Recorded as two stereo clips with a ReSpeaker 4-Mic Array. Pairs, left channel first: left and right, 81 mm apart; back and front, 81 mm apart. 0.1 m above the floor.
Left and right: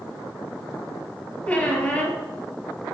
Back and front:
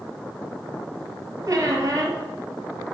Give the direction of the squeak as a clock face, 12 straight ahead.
11 o'clock.